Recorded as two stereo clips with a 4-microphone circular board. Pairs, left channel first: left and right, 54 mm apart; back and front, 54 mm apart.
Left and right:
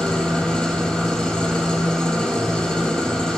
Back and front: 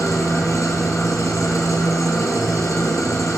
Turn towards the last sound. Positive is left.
turn(degrees=165)